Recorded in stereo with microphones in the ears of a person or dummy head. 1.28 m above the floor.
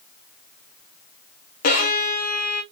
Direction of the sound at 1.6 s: 45° left (ahead or behind).